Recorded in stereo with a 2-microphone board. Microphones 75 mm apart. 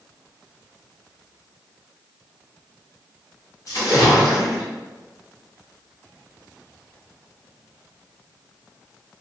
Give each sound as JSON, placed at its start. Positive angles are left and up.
{"t": 3.7, "sound": "a splash", "side_deg": 55, "distance_m": 1.7}